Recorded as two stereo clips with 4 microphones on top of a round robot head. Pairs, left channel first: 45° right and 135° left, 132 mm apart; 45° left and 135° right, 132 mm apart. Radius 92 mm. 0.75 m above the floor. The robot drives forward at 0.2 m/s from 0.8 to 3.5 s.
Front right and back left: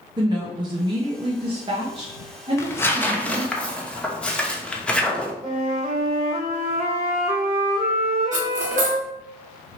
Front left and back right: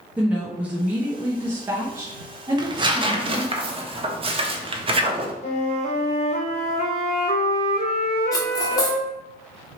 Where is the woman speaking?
155° left, 0.9 m; by 3.5 s 165° left, 1.2 m.